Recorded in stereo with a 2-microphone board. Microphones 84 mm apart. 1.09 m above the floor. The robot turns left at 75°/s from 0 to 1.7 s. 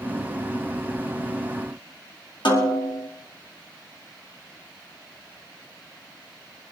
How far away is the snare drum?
About 2.5 m.